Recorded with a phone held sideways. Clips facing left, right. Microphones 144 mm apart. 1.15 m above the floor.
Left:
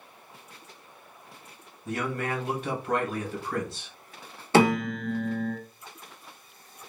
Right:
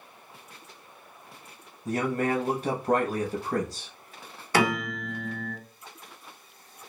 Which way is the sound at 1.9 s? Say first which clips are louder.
Right 4 dB; 40° right (ahead or behind).